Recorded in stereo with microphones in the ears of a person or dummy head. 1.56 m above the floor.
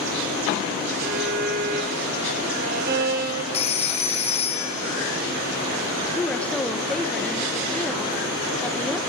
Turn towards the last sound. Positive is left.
turn(degrees=5)  # may be behind; listen again after turning